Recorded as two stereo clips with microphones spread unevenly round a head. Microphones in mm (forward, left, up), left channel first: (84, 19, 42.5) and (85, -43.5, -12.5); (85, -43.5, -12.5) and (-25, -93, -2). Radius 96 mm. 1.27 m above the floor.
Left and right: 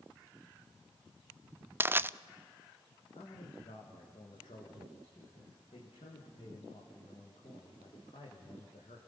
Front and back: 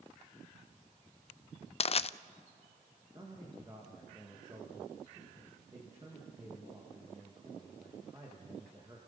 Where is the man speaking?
130° left, 1.7 m.